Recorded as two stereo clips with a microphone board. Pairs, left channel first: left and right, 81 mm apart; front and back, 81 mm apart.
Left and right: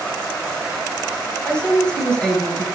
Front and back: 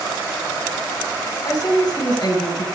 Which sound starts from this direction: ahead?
A woman speaking, at 1.4 s.